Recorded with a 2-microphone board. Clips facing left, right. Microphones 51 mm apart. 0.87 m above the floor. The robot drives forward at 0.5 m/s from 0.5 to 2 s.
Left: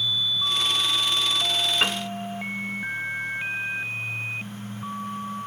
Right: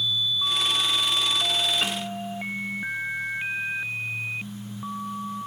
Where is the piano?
40° left (ahead or behind), 0.6 m; by 2.0 s 45° left (ahead or behind), 0.6 m.